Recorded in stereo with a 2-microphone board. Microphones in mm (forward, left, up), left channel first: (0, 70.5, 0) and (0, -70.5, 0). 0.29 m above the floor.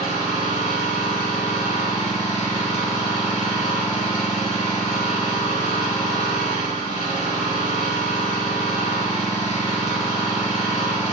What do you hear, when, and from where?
0.0 s an engine running: 60° left (ahead or behind), 1.2 m